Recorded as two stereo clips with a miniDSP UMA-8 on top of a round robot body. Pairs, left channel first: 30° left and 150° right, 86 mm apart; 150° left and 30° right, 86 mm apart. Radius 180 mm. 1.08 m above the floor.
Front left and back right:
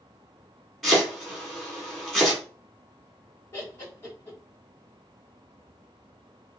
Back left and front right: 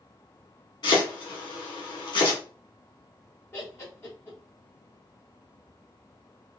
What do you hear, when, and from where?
0.8 s chopping: 120° left, 2 m
3.5 s laughter: 85° left, 1.5 m